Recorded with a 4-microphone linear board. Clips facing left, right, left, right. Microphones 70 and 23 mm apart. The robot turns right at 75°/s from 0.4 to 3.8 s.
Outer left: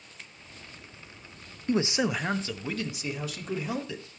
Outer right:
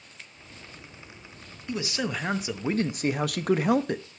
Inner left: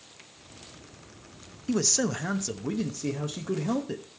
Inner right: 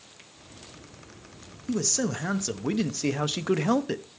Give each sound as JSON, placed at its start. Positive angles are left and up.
{"t": 1.7, "sound": "a man speaking", "azimuth_deg": 140, "distance_m": 0.7}